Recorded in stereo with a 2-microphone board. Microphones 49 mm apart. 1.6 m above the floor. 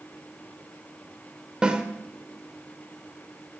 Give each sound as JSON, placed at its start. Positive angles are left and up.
{"t": 1.6, "sound": "a snare drum", "side_deg": -20, "distance_m": 1.4}